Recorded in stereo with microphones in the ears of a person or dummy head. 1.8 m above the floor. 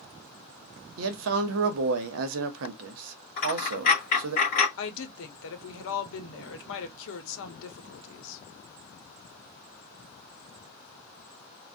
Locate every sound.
1.0 s a man speaking: 70° right (ahead or behind), 0.8 m
3.4 s a dropped coin: 50° left (ahead or behind), 2 m
4.8 s a woman speaking: 75° left (ahead or behind), 0.9 m